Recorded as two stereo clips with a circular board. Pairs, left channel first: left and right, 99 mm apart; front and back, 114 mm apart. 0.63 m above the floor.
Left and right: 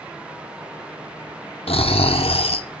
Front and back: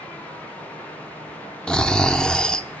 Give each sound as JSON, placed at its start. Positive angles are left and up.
{"t": 1.7, "sound": "snoring", "azimuth_deg": 85, "distance_m": 0.6}